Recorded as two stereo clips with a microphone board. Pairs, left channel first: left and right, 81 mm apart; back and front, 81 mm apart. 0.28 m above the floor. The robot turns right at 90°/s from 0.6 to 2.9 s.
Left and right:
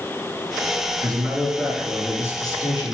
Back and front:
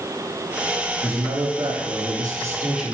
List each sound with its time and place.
1.0 s a man speaking: 75° right, 7.5 m; by 2.9 s 95° left, 7.5 m